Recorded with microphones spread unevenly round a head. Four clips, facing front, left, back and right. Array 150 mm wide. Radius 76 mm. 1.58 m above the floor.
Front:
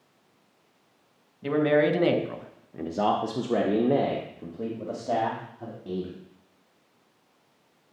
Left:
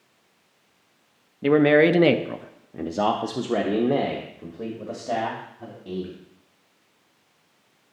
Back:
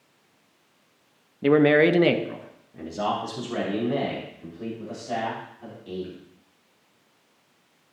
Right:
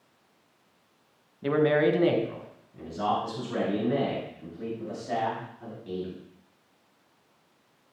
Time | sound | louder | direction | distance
1.4 | a man speaking | left 6 dB, back 5 dB | 150° left | 0.7 m